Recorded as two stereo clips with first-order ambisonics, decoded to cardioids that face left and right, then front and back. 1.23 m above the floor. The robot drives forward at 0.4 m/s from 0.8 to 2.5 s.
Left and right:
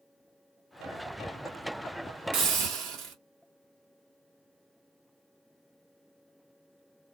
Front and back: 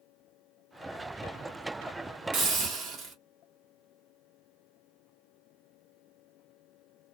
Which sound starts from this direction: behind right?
A hiss, at 2.3 s.